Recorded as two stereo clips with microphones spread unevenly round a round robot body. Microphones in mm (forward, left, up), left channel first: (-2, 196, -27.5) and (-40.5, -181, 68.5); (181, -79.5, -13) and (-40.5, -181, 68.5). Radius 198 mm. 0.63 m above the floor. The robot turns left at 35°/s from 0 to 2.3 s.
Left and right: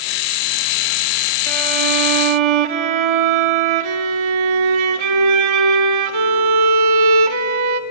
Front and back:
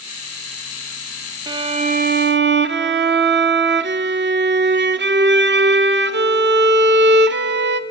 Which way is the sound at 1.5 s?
75° right.